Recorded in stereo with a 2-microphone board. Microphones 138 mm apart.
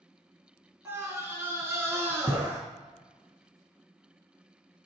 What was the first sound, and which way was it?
A scream, 20° right (ahead or behind).